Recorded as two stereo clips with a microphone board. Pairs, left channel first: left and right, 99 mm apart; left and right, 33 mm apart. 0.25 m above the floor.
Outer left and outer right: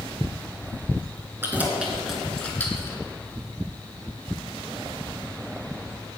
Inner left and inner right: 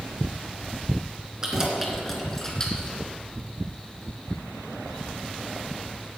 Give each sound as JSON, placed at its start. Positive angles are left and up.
{"t": 1.4, "sound": "keys jangling", "side_deg": -20, "distance_m": 2.5}